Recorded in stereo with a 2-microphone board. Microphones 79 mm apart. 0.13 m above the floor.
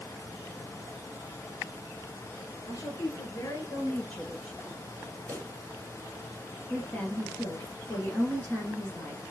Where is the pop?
20° left (ahead or behind), 3.5 m.